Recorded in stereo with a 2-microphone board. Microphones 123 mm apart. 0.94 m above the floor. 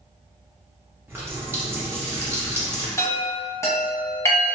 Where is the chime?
25° left (ahead or behind), 1.0 m.